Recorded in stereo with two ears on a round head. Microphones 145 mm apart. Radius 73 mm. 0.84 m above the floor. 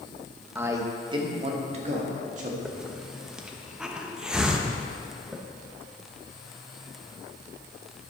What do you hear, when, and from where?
0.6 s a man speaking: 15° right (ahead or behind), 0.9 m; by 2.5 s 50° right (ahead or behind), 1.9 m
2.6 s a hiss: 5° right (ahead or behind), 0.8 m